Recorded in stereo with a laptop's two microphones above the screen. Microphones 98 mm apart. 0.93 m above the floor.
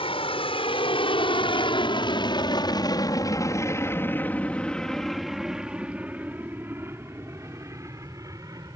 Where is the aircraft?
70° left (ahead or behind); by 8.8 s 35° right (ahead or behind).